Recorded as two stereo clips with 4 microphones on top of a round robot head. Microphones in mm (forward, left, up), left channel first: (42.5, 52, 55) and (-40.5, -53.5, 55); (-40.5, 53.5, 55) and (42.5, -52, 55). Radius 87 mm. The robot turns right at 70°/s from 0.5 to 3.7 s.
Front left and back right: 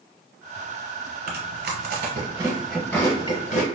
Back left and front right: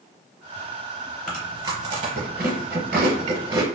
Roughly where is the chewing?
Behind right.